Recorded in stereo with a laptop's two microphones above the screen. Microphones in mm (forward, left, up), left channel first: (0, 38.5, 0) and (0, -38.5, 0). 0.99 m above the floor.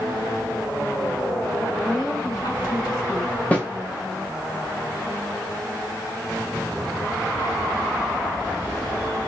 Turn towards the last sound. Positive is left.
turn(degrees=20)  # may be behind; listen again after turning